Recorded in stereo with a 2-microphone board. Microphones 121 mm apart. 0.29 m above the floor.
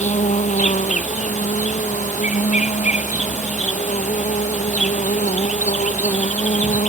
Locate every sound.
0.0 s an insect: 80° left